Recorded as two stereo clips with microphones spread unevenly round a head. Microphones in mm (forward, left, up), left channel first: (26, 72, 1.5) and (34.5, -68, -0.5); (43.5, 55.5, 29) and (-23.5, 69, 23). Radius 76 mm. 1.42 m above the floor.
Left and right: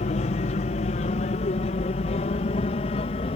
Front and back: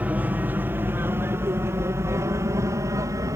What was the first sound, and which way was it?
An aircraft, 115° left.